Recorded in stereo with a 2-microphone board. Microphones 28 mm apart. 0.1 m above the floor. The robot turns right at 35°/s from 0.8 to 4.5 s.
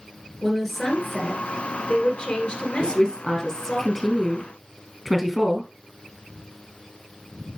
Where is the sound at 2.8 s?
35° left (ahead or behind), 1.6 m; by 5.7 s 5° left (ahead or behind), 1.6 m.